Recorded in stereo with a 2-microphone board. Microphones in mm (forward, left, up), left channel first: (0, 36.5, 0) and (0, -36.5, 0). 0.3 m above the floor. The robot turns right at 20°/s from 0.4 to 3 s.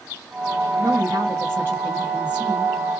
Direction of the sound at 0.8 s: 50° right.